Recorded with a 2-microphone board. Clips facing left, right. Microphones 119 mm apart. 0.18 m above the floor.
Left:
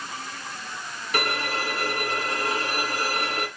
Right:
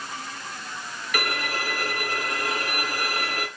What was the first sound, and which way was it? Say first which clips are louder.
A violin: left 2 dB; 30° left (ahead or behind).